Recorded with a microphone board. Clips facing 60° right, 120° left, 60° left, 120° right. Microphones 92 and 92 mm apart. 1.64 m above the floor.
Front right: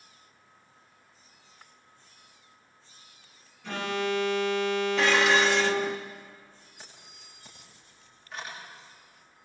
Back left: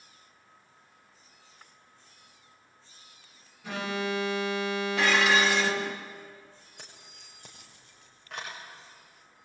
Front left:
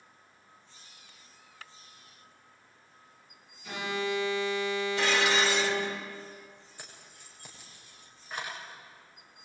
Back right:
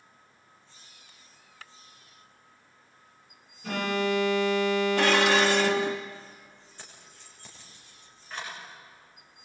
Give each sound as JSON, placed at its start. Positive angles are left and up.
{"t": 3.6, "sound": "an alarm", "azimuth_deg": -160, "distance_m": 2.5}
{"t": 5.0, "sound": "dishes clattering", "azimuth_deg": -155, "distance_m": 3.0}
{"t": 6.8, "sound": "keys jangling", "azimuth_deg": 140, "distance_m": 6.5}